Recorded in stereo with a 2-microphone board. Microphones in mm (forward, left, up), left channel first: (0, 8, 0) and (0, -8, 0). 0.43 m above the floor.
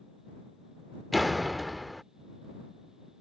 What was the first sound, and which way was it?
A door slam, centre (ahead or behind).